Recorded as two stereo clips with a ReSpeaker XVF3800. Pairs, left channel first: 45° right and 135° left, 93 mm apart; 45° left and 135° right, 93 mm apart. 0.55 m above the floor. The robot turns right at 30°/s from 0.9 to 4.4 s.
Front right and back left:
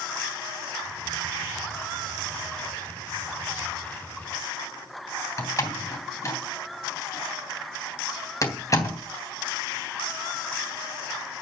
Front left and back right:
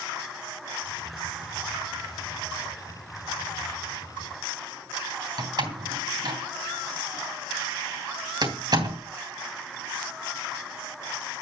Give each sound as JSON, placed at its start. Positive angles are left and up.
{"t": 5.4, "sound": "a door slam", "azimuth_deg": -95, "distance_m": 3.0}